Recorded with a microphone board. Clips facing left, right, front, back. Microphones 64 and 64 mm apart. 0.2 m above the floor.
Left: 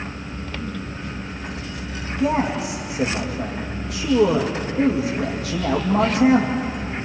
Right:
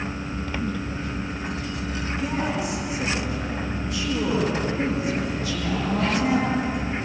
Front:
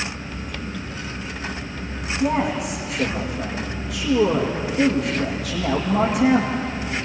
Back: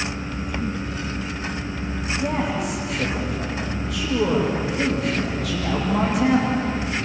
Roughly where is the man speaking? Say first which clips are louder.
Left 7 dB, front 4 dB; left.